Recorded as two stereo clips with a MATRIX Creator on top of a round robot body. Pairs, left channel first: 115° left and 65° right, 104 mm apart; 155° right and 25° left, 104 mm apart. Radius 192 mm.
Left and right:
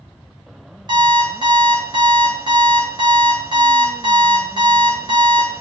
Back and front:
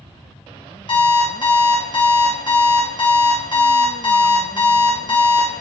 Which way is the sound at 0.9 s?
115° right.